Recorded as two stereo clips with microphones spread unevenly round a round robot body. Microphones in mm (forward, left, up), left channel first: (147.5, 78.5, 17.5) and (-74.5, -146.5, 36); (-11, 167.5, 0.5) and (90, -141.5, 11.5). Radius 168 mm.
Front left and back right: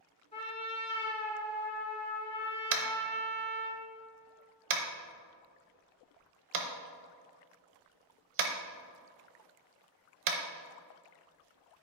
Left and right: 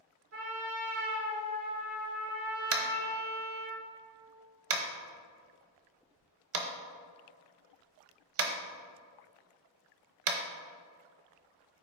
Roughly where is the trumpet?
Ahead right.